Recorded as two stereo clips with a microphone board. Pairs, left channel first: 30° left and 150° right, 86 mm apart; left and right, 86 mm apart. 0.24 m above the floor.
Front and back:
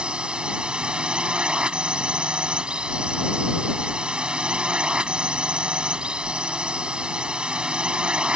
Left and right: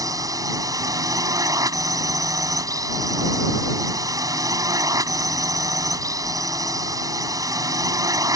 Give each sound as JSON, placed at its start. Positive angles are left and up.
{"t": 0.0, "sound": "a drone", "azimuth_deg": -75}